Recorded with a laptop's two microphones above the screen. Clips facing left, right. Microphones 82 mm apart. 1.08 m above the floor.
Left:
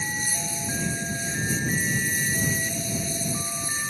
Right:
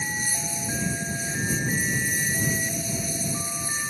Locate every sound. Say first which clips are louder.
0.0 s a lawn mower: even; 10° right (ahead or behind)